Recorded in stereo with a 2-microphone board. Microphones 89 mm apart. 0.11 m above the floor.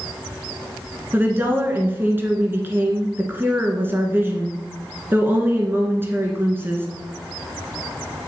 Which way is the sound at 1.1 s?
25° right (ahead or behind).